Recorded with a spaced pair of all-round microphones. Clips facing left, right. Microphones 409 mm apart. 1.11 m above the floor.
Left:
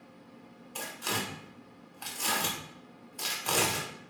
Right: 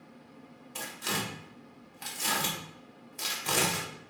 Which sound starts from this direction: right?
Tearing paper, at 0.8 s.